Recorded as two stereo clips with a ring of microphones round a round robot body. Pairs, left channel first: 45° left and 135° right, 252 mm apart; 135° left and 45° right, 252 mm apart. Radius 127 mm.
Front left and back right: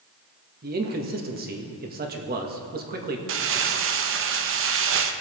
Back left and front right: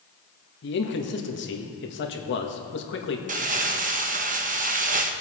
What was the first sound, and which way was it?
A man speaking, 175° left.